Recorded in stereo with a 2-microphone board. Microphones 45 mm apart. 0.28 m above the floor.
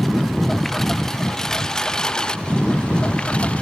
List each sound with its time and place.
0.0 s a lawn mower: 5° left (ahead or behind); by 3.6 s 25° left (ahead or behind)